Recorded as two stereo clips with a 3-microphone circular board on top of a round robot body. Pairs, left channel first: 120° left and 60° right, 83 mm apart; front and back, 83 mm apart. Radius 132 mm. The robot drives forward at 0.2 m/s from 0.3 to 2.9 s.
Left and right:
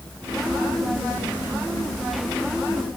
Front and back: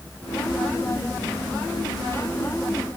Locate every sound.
Only background noise.